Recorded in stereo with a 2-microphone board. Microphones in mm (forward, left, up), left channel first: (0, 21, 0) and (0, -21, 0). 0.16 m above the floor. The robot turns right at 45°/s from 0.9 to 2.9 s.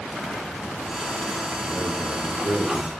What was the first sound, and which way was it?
A man speaking, 120° right.